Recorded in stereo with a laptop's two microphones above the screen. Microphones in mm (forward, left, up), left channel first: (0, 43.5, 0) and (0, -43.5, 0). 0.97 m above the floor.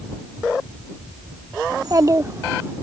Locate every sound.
1.7 s a child speaking: 50° right (ahead or behind); by 2.7 s 30° right (ahead or behind)